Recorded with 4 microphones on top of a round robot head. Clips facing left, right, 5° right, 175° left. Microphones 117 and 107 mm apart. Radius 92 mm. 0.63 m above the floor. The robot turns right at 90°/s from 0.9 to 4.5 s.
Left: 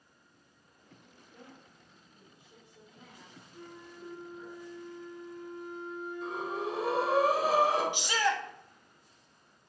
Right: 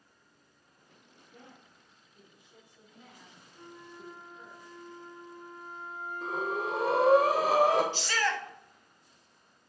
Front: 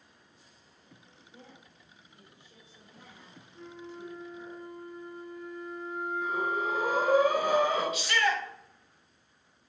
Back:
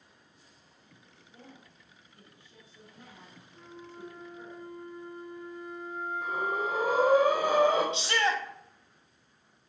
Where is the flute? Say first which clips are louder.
Even, front 3 dB; 105° left, 1.5 m; by 7.2 s 165° right, 1.5 m.